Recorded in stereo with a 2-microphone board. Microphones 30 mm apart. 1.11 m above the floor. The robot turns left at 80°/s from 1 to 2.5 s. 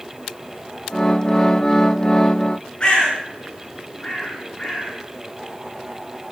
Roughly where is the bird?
Left.